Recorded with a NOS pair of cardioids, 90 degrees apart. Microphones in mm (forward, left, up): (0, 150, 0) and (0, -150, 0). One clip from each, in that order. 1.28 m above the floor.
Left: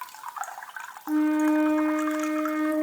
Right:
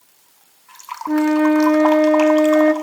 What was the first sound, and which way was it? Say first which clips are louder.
A flute: right 7 dB; 60° right.